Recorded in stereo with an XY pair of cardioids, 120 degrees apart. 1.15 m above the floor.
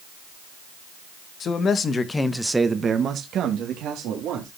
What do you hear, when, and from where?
1.4 s a man speaking: 50° left, 1.8 m; by 4.5 s 80° right, 3 m